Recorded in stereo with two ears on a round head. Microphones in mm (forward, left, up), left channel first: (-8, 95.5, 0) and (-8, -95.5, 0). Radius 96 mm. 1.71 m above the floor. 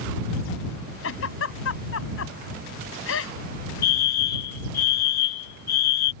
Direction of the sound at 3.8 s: 45° left (ahead or behind).